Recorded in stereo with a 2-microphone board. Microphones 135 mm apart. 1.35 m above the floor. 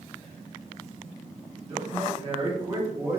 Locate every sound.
1.7 s a man speaking: 50° right (ahead or behind), 1.4 m; by 3.2 s 15° right (ahead or behind), 0.9 m